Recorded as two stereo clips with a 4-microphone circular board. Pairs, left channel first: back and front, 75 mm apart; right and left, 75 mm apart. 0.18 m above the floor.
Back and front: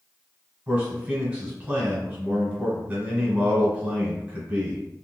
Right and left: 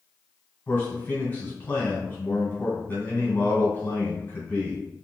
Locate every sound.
0.7 s a man speaking: 50° right, 1.8 m